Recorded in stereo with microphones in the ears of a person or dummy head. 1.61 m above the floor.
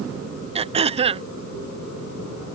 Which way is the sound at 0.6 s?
35° right (ahead or behind).